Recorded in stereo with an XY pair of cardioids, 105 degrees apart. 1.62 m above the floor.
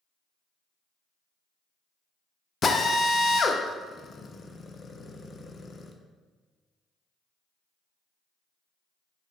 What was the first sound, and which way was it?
A drill, 40° left.